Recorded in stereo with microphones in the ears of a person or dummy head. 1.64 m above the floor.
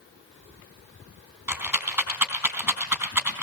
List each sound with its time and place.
1.5 s a rattle: 10° right (ahead or behind), 3 m